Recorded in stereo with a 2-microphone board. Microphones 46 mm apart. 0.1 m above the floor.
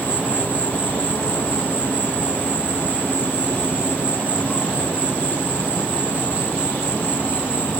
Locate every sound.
0.0 s an insect: 40° left (ahead or behind)